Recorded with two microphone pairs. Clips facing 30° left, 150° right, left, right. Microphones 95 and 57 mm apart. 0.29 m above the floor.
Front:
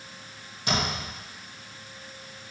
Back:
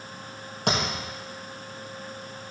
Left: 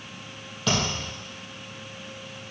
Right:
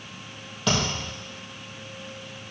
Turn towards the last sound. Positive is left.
turn(degrees=-175)